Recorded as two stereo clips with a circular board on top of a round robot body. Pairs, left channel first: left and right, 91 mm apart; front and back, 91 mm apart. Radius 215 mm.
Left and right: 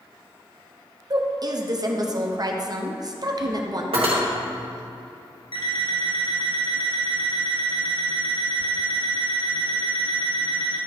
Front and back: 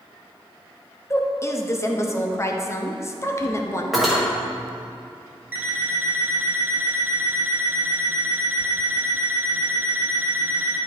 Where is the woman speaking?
55° right, 1.1 m.